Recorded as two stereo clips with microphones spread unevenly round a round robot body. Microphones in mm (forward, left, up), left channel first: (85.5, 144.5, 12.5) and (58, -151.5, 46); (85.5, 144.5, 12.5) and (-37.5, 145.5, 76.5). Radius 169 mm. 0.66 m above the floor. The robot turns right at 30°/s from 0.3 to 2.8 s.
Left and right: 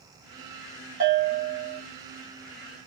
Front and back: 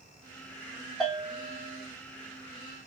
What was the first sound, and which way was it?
A bell, 45° right.